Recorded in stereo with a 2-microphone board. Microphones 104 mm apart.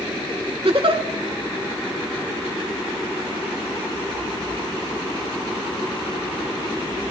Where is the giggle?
65° right (ahead or behind), 1.2 m.